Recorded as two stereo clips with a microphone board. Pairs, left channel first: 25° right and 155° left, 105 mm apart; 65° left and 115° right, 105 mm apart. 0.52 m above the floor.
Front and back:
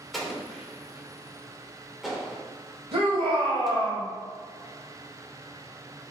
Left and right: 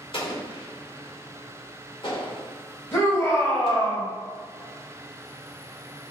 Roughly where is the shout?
Behind left.